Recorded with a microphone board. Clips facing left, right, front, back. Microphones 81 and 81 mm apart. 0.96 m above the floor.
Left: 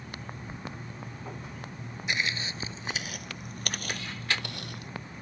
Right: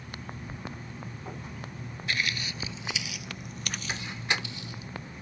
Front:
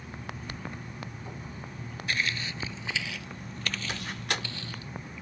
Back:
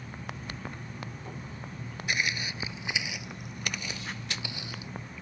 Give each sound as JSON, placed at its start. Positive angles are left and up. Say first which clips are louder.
{"t": 2.1, "sound": "footsteps", "louder": "left 1 dB, even", "azimuth_deg": 130}
{"t": 3.9, "sound": "a door slam", "louder": "right 2 dB, front 4 dB", "azimuth_deg": -20}